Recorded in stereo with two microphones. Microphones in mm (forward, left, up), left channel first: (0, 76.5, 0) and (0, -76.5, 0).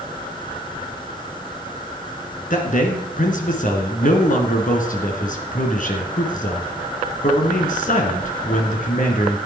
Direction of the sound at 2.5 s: 60° left (ahead or behind).